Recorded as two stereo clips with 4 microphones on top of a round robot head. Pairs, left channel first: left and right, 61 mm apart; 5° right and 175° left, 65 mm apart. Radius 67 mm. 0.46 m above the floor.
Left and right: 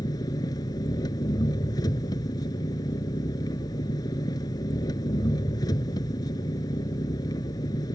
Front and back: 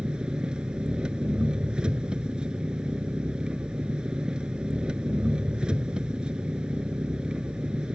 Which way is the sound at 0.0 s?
100° left.